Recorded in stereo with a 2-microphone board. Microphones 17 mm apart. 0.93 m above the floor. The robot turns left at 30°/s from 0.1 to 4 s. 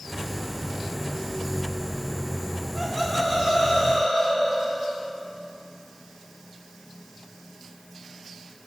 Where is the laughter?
Straight behind, 5 m; by 5.0 s 145° left, 5 m.